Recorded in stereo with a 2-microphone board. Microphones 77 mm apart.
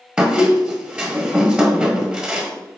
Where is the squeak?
10° right (ahead or behind), 0.9 m.